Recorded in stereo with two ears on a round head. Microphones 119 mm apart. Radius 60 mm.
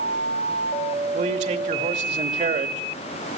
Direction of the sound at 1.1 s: 50° right (ahead or behind).